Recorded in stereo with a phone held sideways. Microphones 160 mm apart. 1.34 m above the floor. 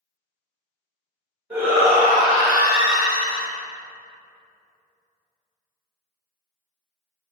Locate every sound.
1.5 s a shout: 10° right (ahead or behind), 1.5 m; by 3.5 s 45° right (ahead or behind), 2.5 m